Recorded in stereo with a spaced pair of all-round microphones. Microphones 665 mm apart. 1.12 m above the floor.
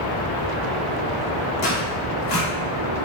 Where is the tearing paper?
85° left, 1.2 m.